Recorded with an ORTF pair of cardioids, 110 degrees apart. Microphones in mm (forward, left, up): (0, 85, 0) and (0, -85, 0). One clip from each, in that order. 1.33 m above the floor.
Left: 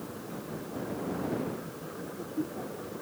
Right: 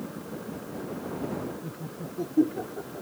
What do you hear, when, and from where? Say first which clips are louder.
1.6 s laughter: right 1 dB; 60° right; by 3.0 s 55° right